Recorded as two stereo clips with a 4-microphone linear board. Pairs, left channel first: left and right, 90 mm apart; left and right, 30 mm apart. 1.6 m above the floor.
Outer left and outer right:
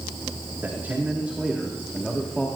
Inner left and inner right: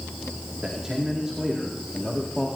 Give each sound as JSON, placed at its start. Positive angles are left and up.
{"t": 0.6, "sound": "a man speaking", "side_deg": -25, "distance_m": 4.0}